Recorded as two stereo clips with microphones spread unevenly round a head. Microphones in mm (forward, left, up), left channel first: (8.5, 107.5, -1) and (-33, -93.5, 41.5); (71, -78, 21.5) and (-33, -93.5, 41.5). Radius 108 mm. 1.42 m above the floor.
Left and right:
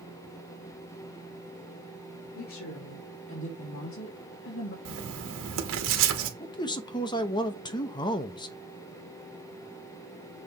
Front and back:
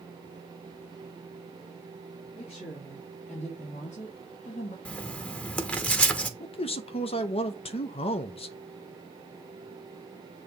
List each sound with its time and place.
2.4 s a woman speaking: 55° left, 4 m; by 4.8 s 45° left, 1.9 m
4.8 s writing: 70° right, 1.5 m
6.4 s a man speaking: 15° left, 0.8 m